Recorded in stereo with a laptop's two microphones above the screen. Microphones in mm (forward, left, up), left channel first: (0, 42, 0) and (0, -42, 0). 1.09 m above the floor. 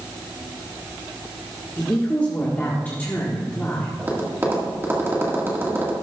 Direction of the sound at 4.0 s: 25° right (ahead or behind).